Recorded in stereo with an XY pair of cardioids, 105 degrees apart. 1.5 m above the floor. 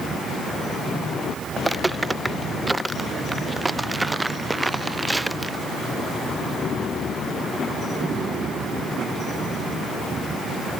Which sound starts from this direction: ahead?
Footsteps, at 1.6 s.